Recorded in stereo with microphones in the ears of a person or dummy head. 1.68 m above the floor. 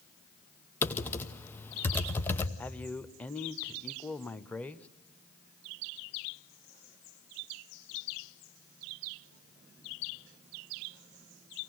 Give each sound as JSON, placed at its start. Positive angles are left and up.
{"t": 0.8, "sound": "typing on a keyboard", "side_deg": 15, "distance_m": 1.0}
{"t": 2.6, "sound": "a man speaking", "side_deg": 5, "distance_m": 0.7}